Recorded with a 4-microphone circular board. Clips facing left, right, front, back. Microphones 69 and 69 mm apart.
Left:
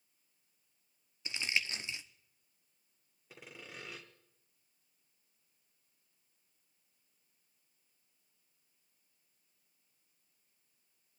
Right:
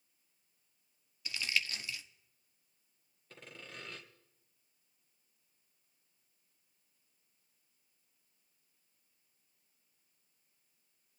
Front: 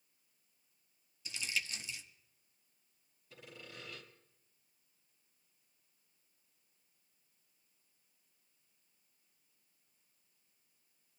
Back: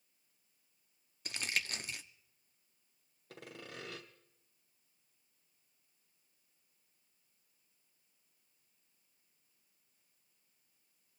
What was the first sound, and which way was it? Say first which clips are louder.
Crumpling: even, back 2 dB; 150° left.